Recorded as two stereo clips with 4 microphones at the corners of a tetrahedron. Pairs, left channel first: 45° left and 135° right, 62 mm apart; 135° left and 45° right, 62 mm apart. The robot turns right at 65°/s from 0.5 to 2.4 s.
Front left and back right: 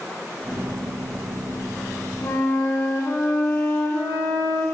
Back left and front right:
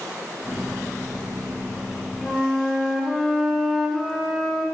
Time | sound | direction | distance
2.2 | a flute | 40° left | 1.2 m